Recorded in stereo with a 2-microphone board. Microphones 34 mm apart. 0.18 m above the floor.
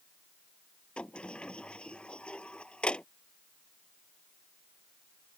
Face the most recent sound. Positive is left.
turn(degrees=30)  # may be behind; listen again after turning